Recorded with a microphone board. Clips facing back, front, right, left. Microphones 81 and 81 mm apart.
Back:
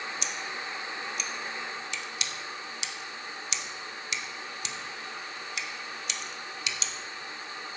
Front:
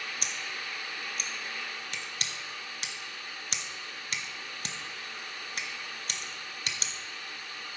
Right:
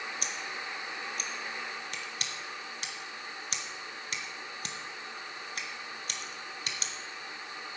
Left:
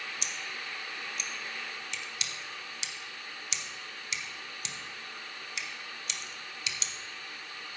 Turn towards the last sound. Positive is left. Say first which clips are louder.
# back 3 dB, right 2 dB
turn(degrees=-45)